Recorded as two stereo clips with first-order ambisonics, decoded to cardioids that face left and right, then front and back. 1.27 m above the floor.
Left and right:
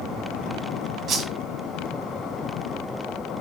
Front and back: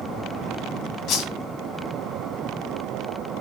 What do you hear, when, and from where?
1.1 s a whoosh: 40° right, 2 m